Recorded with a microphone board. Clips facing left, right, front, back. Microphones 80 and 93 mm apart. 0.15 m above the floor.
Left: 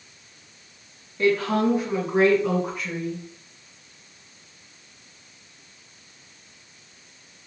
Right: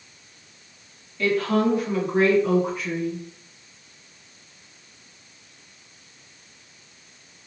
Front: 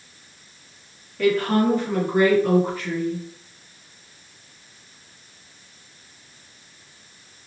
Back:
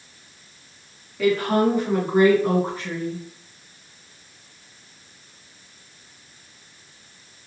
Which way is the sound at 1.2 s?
100° left.